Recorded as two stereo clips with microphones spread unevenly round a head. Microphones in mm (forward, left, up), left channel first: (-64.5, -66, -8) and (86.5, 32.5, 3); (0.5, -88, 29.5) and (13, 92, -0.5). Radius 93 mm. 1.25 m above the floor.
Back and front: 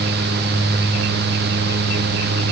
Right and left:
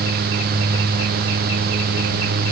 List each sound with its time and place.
Only background noise.